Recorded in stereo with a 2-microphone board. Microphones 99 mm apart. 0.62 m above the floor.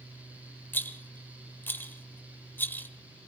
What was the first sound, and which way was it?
A rattle, 20° left (ahead or behind).